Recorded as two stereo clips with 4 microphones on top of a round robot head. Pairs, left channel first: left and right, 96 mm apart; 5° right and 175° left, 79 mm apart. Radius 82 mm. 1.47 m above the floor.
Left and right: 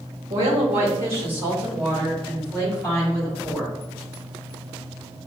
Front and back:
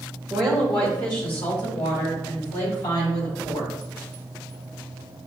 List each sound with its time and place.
0.3 s a woman speaking: 100° right, 1.4 m; by 3.7 s 5° left, 4 m